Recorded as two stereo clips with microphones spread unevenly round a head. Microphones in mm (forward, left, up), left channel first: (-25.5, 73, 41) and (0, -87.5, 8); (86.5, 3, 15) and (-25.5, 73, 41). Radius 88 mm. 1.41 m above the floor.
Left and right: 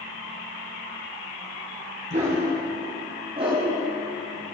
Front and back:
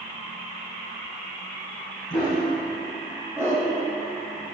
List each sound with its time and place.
2.1 s a dog barking: 130° right, 4.5 m; by 3.7 s 145° right, 3 m